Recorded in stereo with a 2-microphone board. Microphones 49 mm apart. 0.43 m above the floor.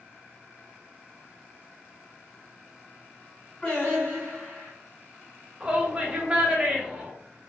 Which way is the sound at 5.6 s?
20° right (ahead or behind).